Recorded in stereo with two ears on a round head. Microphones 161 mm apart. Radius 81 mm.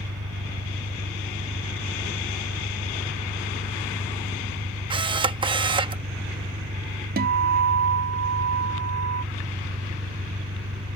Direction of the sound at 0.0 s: 85° right.